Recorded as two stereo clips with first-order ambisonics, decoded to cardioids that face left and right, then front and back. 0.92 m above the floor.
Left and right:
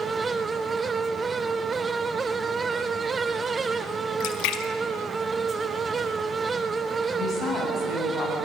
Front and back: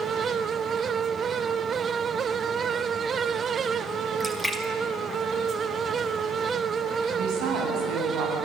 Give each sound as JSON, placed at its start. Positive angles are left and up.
{"t": 4.2, "sound": "a splash", "azimuth_deg": 95, "distance_m": 2.0}
{"t": 7.1, "sound": "a woman speaking", "azimuth_deg": 155, "distance_m": 7.5}